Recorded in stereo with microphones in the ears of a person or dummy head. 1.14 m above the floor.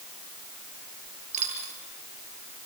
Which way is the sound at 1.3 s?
40° right (ahead or behind).